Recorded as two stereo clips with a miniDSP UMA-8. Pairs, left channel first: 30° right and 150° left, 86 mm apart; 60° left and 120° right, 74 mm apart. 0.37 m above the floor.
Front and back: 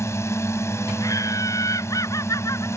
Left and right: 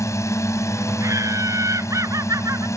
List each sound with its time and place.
0.0 s a drone: 25° left
1.0 s laughter: 80° right